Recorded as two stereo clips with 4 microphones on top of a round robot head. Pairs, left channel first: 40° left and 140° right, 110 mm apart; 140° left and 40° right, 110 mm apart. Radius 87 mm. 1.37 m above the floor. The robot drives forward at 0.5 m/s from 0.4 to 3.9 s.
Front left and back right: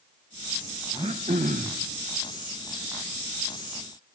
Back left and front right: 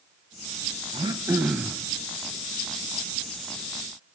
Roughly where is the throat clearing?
Right.